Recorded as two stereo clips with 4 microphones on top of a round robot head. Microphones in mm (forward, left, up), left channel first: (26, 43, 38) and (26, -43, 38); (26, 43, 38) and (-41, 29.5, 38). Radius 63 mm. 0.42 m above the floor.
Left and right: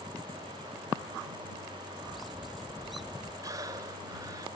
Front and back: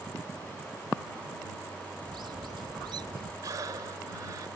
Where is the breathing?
135° right.